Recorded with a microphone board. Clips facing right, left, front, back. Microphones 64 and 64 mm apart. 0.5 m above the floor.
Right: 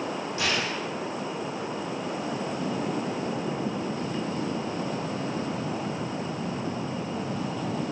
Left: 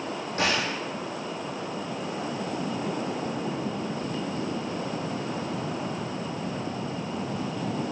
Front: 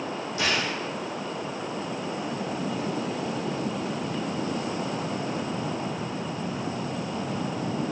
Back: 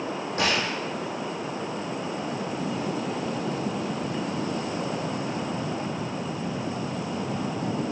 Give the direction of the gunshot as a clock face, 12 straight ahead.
8 o'clock.